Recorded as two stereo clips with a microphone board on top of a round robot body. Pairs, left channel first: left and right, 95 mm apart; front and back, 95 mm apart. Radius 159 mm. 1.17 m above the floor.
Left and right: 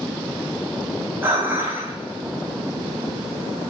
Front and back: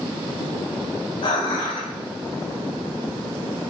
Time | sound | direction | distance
1.2 | dishes clattering | 25° right | 5 m